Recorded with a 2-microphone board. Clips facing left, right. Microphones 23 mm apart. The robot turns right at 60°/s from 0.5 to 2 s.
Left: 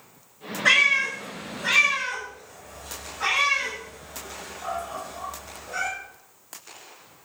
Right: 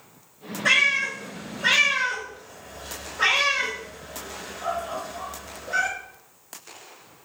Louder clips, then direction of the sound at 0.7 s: Left 1 dB; 10° left (ahead or behind).